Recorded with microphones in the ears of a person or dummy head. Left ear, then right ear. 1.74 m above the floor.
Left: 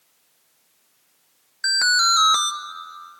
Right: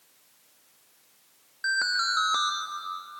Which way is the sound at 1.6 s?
60° left (ahead or behind).